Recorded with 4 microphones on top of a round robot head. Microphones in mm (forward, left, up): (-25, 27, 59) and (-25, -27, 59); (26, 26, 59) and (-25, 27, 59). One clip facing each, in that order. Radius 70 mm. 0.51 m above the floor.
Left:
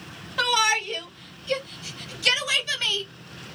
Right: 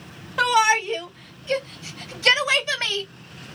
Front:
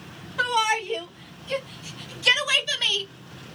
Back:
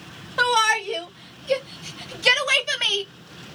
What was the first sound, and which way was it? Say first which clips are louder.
A shout: right 4 dB, back 4 dB; 160° right.